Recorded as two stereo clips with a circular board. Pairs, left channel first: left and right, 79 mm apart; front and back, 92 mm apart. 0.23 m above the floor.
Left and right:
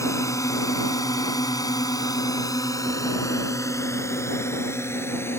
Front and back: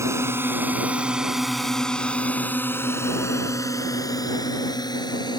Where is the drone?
130° left; by 5.4 s 35° left.